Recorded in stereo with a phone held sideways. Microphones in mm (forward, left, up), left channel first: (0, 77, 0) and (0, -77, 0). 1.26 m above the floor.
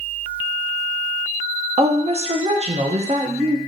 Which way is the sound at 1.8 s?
45° right (ahead or behind).